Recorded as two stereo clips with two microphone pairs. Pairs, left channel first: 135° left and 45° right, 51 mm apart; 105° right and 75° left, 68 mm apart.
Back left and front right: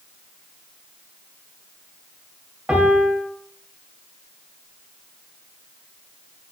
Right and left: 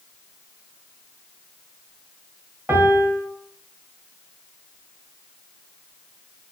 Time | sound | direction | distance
2.7 | a piano | 20° left | 0.7 m